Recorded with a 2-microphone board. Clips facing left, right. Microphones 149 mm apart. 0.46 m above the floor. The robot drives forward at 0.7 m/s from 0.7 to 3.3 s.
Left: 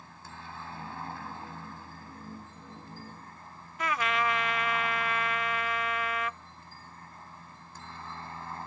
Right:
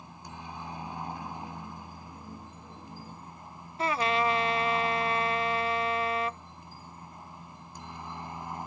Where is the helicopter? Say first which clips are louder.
Right 3 dB; 15° right (ahead or behind).